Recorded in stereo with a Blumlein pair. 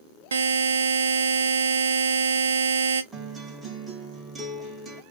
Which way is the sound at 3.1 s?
10° right.